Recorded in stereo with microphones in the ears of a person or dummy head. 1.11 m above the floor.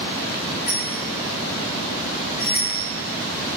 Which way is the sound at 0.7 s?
50° left (ahead or behind).